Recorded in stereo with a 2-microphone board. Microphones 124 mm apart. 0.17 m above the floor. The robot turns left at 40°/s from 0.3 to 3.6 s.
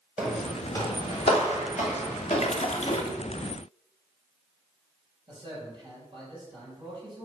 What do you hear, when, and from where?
0.2 s footsteps: 5° right (ahead or behind), 2.5 m; by 3.0 s 40° left (ahead or behind), 4.5 m
2.4 s a splash: 60° left (ahead or behind), 0.9 m; by 3.1 s 55° left (ahead or behind), 0.9 m
5.3 s a man speaking: 35° right (ahead or behind), 4 m